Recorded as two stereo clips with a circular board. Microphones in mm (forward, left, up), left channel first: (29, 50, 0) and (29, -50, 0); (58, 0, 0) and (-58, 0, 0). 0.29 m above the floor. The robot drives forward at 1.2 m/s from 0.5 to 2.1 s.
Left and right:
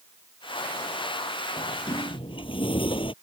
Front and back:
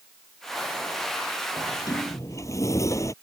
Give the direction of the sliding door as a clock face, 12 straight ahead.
10 o'clock.